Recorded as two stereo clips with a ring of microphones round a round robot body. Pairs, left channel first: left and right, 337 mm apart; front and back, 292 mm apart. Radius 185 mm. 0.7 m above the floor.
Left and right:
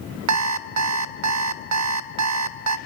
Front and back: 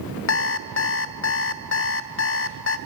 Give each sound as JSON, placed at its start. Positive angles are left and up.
{"t": 0.3, "sound": "an alarm clock", "azimuth_deg": -50, "distance_m": 0.7}